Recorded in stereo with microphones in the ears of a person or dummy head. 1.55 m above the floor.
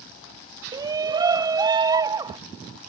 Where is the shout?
20° right (ahead or behind).